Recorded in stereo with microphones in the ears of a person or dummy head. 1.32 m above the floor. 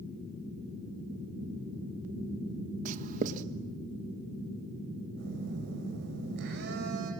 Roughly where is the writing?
Right.